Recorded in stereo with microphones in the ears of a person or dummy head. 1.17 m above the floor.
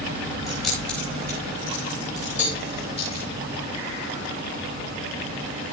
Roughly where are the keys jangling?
Centre.